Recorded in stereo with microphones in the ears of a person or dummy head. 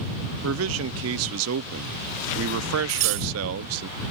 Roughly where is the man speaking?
Right.